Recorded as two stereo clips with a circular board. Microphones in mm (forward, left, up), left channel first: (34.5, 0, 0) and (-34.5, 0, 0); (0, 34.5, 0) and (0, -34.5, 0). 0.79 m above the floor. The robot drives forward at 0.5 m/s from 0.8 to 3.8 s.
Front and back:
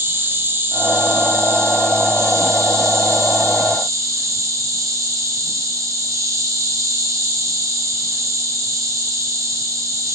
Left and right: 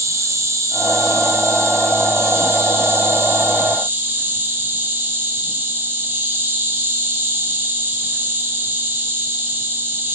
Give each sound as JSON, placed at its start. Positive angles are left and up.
{"t": 0.0, "sound": "an insect", "azimuth_deg": -130, "distance_m": 3.0}